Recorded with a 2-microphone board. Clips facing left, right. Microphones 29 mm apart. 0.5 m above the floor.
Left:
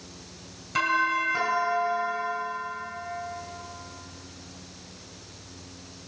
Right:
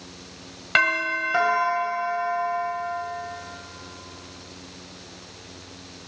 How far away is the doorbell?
About 3 m.